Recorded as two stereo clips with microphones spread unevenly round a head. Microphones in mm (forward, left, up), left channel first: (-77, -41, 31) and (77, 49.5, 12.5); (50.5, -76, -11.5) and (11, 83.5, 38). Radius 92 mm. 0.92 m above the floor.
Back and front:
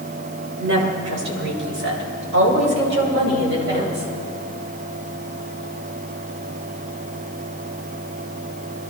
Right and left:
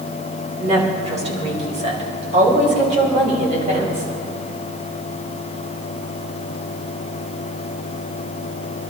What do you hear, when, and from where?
0.6 s a woman speaking: 45° left, 4 m; by 4.1 s 60° left, 5.5 m